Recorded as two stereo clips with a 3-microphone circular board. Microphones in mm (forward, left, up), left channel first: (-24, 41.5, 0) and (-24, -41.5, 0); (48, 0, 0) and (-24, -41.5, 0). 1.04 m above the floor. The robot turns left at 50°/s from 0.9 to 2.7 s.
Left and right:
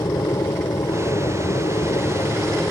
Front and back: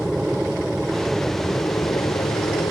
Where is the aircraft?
125° left; by 2.7 s 35° left.